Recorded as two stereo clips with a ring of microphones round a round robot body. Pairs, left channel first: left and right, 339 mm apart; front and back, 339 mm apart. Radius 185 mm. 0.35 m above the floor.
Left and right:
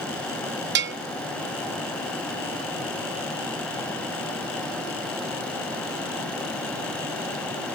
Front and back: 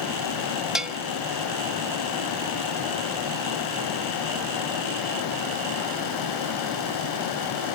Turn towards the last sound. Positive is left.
turn(degrees=-95)